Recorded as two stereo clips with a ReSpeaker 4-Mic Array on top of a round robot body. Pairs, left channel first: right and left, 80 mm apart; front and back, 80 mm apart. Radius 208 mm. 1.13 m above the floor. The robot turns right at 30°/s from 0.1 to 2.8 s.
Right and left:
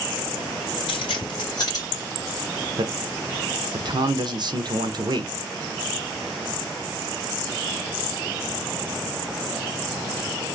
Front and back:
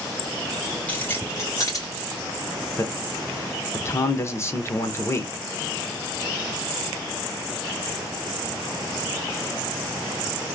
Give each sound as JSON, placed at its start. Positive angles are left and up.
{"t": 0.9, "sound": "keys jangling", "azimuth_deg": -75, "distance_m": 2.0}
{"t": 2.8, "sound": "a man speaking", "azimuth_deg": 55, "distance_m": 1.1}